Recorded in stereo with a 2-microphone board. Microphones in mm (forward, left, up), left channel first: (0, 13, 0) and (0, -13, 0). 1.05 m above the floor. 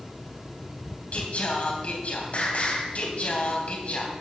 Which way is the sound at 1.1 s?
60° left (ahead or behind).